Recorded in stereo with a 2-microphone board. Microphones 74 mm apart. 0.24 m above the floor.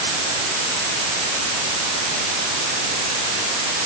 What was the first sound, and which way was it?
Only background noise.